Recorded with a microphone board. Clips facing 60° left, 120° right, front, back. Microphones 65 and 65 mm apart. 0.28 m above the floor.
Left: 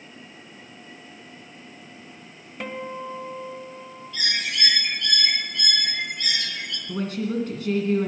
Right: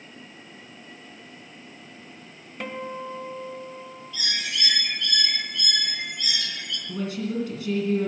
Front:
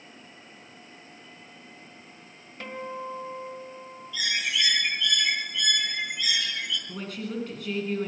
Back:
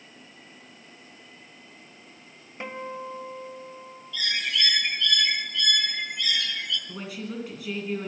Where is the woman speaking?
95° left, 2.5 m.